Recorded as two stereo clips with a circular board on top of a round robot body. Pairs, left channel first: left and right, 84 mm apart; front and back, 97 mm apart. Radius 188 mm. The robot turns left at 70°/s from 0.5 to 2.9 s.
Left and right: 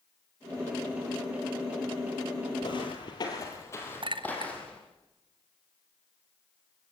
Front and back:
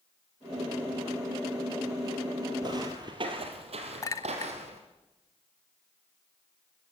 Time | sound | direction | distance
2.6 | footsteps | 135° left | 2.0 m
4.0 | a clink | 60° right | 0.8 m